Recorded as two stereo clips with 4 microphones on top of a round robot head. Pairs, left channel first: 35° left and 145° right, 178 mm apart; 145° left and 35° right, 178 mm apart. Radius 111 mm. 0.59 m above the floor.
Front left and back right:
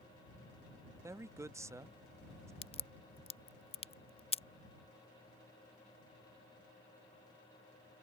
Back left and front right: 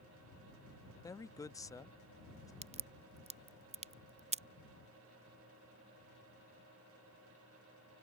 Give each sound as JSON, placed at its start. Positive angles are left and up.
{"t": 1.0, "sound": "a man speaking", "azimuth_deg": 175}
{"t": 2.6, "sound": "a crack", "azimuth_deg": -5}